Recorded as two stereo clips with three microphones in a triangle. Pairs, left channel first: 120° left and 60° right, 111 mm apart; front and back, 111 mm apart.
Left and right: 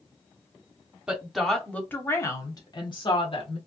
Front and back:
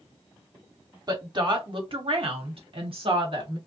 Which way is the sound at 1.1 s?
140° right.